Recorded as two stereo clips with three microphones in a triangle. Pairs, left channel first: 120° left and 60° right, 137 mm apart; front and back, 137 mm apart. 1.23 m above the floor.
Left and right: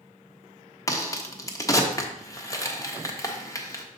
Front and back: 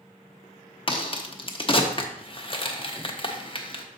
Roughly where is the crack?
Ahead left.